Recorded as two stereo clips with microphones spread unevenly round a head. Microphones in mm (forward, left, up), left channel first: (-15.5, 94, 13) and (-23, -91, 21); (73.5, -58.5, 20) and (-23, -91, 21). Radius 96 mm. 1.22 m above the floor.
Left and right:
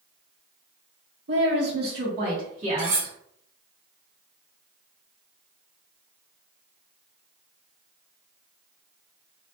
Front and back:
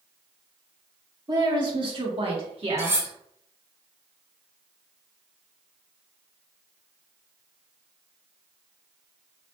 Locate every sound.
1.3 s a woman speaking: 115° right, 1.6 m; by 3.1 s 150° right, 2.0 m
2.8 s cutlery clinking: 100° right, 1.5 m